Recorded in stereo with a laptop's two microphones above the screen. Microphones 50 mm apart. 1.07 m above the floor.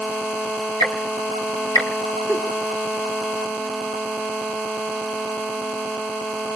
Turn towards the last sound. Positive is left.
turn(degrees=-50)  # may be behind; listen again after turning